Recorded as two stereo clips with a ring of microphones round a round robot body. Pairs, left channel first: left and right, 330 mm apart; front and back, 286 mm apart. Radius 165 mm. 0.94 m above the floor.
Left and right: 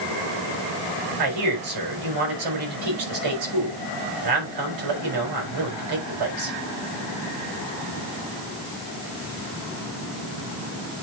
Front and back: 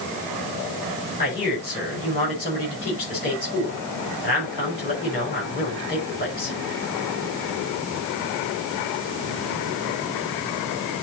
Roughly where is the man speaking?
Ahead right.